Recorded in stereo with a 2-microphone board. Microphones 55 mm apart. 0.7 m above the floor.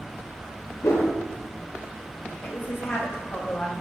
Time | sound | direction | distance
0.8 | a whoosh | 60° left (ahead or behind) | 0.7 m
2.4 | a woman speaking | 40° left (ahead or behind) | 0.8 m